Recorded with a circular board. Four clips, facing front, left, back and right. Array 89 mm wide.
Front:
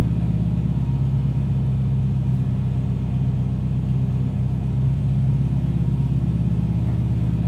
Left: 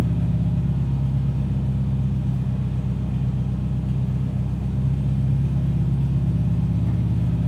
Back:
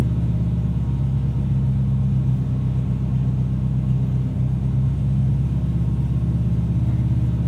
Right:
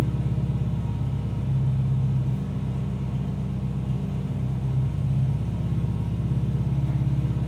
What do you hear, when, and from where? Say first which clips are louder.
0.0 s an engine running: left 4 dB, front 1 dB; 45° left, 1.3 m